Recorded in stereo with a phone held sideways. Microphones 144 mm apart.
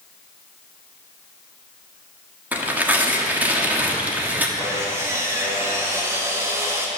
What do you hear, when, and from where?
2.5 s tearing paper: 10° right (ahead or behind), 1.3 m
4.6 s sawing: 20° right (ahead or behind), 1.7 m